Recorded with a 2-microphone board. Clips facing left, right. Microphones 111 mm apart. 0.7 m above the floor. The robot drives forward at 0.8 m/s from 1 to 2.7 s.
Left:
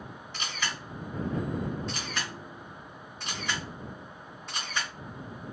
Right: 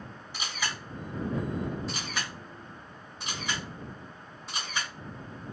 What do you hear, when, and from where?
0.3 s a camera shutter: 10° right (ahead or behind), 1.0 m; by 4.9 s 5° right (ahead or behind), 2.5 m